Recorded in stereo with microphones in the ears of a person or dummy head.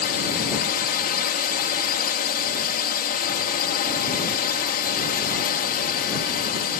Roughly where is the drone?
Left.